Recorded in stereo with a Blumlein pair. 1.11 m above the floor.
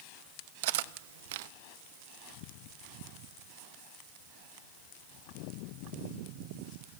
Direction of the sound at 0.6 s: 50° right.